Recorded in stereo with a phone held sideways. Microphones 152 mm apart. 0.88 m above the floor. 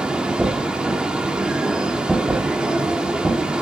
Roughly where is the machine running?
Centre.